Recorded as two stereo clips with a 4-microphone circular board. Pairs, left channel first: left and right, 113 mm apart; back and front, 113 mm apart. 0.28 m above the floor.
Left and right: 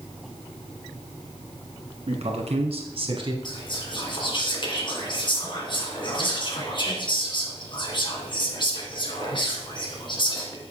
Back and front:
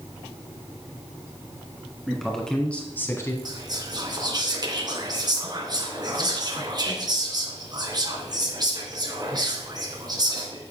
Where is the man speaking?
90° right, 2.5 m; by 3.4 s 125° right, 1.6 m.